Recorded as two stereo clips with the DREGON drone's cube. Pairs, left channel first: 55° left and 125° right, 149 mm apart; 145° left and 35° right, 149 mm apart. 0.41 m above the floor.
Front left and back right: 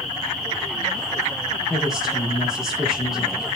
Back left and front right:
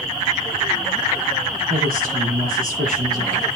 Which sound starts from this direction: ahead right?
A woman speaking, at 1.7 s.